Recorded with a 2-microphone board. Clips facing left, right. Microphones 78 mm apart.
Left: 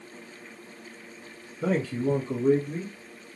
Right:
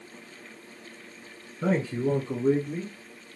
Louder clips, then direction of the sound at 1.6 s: Even; 40° right (ahead or behind).